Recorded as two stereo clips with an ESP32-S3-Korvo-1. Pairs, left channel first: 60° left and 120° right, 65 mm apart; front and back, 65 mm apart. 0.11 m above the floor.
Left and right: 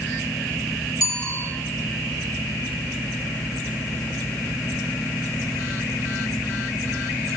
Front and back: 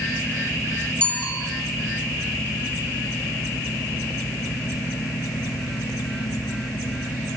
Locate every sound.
1.0 s a bicycle bell: 70° left, 4 m